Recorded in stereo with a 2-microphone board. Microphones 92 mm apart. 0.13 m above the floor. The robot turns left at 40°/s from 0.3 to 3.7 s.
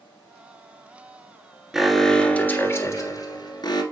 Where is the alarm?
175° right, 1.7 m; by 3.8 s 105° left, 1.7 m.